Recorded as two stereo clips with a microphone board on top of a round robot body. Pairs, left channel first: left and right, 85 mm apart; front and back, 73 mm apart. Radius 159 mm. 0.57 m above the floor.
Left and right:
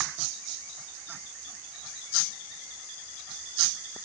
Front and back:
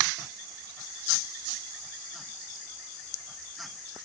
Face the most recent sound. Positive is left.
No sound to turn to.